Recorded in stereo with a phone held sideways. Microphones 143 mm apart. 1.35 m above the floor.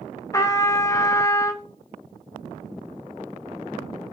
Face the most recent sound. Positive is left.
turn(degrees=20)  # may be behind; listen again after turning